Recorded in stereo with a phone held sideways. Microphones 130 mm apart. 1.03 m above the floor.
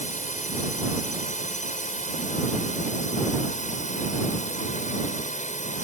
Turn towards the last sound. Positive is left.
turn(degrees=60)  # may be behind; listen again after turning